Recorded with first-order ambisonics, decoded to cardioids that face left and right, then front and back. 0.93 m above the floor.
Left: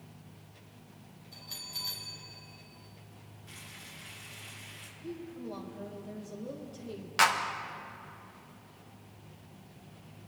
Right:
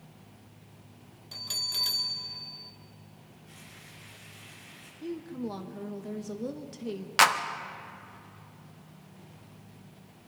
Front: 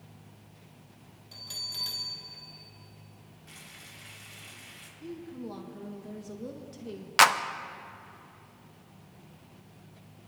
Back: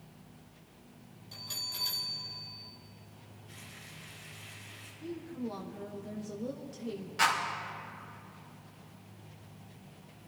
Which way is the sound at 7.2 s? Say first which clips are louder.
Right 3 dB, front 7 dB; 25° right.